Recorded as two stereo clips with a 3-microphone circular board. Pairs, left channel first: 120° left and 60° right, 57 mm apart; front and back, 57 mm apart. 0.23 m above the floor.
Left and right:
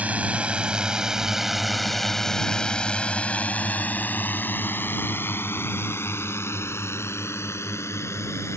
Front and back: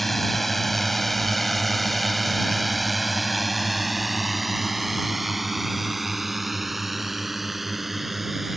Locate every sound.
0.0 s a drone: 85° right; by 8.6 s 95° left